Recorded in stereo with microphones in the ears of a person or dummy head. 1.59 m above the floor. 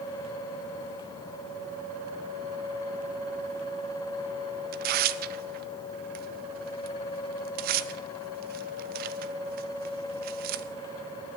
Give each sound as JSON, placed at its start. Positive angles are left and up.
{"t": 4.7, "sound": "tearing paper", "side_deg": -50, "distance_m": 0.6}